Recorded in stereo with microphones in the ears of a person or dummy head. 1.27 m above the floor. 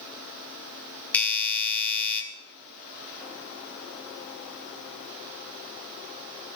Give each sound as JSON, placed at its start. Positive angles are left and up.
{"t": 1.1, "sound": "a doorbell", "side_deg": 20, "distance_m": 1.5}